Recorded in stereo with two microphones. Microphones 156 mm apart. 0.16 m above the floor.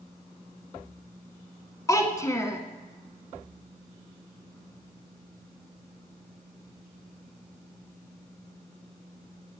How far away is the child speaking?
About 0.7 m.